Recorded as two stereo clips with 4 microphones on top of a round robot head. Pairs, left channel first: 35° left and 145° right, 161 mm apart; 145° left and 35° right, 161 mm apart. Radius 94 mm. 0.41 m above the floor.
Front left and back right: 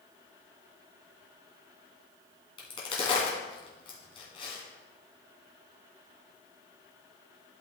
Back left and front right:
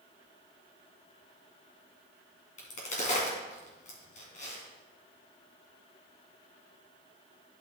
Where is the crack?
100° left, 2.5 m.